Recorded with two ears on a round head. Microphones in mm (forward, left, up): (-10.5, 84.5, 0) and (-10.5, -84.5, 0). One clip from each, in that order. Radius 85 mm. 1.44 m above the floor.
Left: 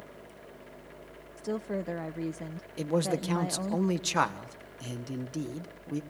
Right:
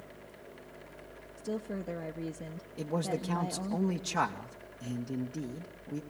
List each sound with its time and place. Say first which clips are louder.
1.4 s a woman speaking: left 4 dB; 40° left (ahead or behind), 0.7 m
2.8 s a man speaking: left 5 dB; 70° left (ahead or behind), 1.5 m